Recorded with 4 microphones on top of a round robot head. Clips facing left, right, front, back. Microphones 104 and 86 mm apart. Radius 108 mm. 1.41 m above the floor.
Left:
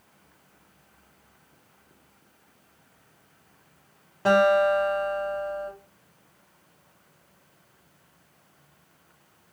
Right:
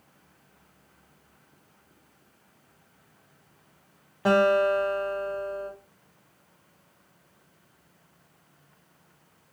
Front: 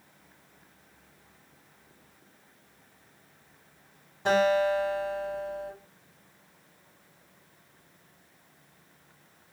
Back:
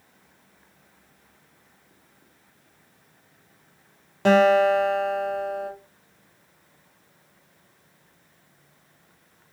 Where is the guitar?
170° right, 0.7 m.